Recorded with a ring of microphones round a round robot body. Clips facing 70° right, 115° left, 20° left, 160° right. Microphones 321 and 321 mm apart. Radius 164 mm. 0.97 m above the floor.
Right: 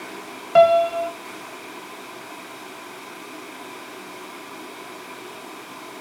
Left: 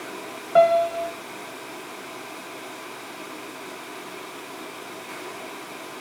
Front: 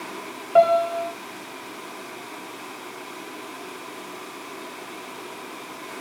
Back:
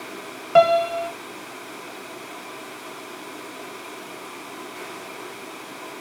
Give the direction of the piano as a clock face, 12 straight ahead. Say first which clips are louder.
Right 3 dB, back 1 dB; 4 o'clock.